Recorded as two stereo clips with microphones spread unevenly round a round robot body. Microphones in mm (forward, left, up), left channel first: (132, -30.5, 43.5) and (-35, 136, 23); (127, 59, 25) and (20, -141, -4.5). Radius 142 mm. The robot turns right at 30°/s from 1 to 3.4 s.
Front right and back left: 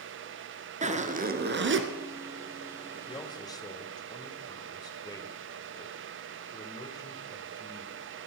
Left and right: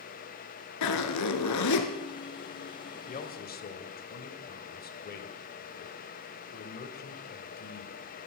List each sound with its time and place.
0.8 s a zipper: 75° left, 1.5 m; by 1.9 s 100° left, 1.5 m
3.1 s a man speaking: 20° left, 1.9 m; by 8.3 s 30° left, 1.9 m